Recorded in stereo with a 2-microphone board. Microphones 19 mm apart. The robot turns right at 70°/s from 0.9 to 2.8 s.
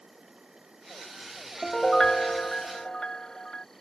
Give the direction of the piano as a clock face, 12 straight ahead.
11 o'clock.